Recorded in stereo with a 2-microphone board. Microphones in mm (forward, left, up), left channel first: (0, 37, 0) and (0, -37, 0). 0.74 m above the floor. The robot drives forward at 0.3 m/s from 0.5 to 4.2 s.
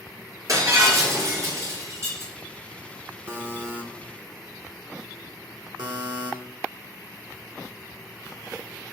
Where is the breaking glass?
50° right (ahead or behind), 5.5 m; by 2.3 s 45° right (ahead or behind), 6 m.